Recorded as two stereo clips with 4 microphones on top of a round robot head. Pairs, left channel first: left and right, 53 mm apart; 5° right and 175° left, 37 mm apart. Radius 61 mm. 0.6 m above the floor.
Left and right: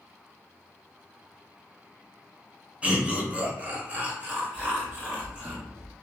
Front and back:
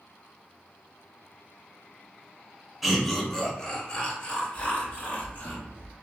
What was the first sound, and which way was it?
Laughter, 100° right.